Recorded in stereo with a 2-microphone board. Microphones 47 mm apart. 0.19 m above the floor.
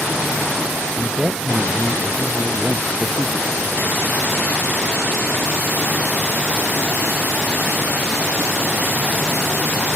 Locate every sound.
1.0 s a man speaking: 20° right (ahead or behind)